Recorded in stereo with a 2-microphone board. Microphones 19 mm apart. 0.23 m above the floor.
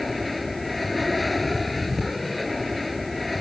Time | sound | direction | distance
0.0 | an aircraft | centre (ahead or behind) | ?